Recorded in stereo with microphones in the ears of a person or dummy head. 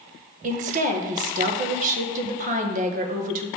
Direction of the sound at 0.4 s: 40° right (ahead or behind).